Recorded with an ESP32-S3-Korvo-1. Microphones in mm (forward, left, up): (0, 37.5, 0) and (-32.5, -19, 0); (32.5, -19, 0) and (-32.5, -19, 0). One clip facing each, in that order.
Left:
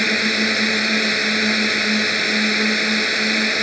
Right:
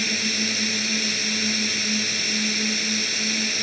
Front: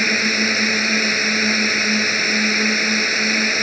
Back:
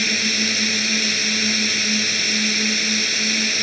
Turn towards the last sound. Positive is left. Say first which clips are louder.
# left 8 dB, front 5 dB
turn(degrees=45)